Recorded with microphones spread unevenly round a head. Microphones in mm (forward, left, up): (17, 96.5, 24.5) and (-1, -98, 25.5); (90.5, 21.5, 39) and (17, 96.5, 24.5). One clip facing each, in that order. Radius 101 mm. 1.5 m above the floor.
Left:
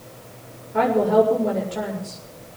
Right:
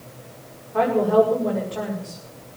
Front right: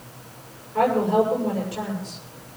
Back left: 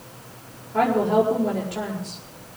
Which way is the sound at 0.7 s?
150° left.